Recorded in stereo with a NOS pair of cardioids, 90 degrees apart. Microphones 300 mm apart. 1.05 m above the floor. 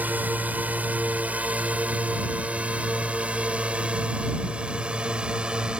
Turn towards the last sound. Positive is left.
turn(degrees=-5)